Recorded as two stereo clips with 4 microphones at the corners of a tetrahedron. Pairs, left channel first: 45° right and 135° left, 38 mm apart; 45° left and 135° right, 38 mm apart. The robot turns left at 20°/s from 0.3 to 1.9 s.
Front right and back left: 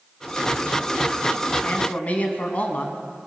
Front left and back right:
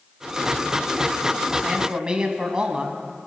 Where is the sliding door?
I don't hear a sliding door.